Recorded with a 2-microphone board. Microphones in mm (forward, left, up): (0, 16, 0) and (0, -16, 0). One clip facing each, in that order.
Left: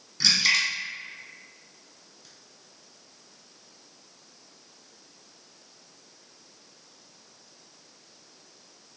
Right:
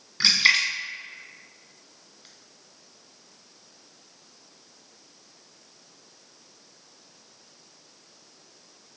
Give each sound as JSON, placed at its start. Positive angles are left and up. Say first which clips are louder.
{"t": 0.2, "sound": "a splash", "louder": "right 3 dB", "side_deg": -40, "distance_m": 1.0}